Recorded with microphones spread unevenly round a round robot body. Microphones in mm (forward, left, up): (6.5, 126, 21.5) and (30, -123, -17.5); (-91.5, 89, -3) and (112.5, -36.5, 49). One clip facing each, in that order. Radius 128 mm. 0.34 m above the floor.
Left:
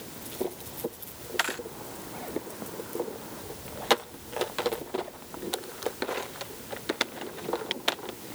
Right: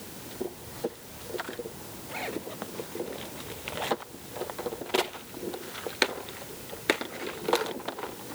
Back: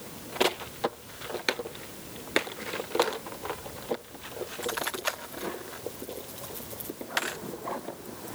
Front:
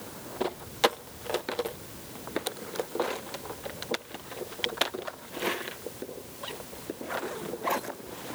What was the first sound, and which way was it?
Only background noise.